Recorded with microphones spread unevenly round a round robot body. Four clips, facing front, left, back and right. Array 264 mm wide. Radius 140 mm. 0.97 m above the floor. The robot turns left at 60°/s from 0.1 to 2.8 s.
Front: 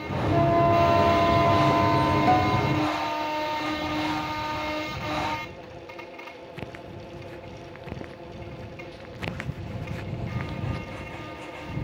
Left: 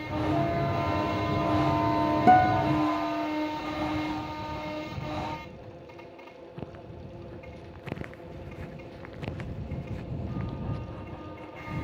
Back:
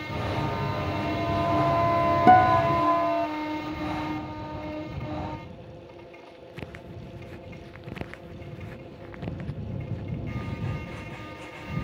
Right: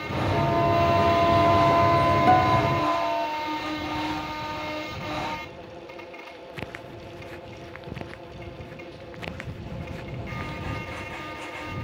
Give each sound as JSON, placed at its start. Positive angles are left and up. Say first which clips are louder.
{"t": 0.3, "sound": "a flute", "louder": "right 7 dB, front 12 dB", "azimuth_deg": -5}
{"t": 2.3, "sound": "a guitar", "louder": "left 3 dB, back 5 dB", "azimuth_deg": 145}